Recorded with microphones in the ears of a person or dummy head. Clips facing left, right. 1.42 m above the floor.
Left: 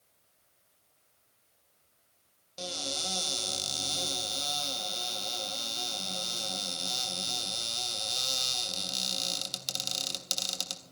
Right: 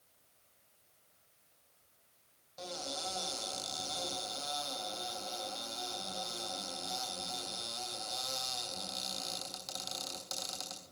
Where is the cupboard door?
40° left (ahead or behind), 3 m.